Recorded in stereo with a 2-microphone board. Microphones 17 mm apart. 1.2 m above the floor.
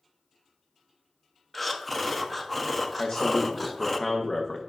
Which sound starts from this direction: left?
A man speaking, at 3.0 s.